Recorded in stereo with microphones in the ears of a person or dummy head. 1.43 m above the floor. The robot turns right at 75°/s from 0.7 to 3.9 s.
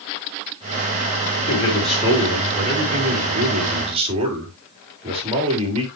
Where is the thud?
No thud in this recording.